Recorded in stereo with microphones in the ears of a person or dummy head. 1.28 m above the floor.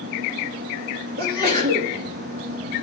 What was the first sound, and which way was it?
A sneeze, 50° right (ahead or behind).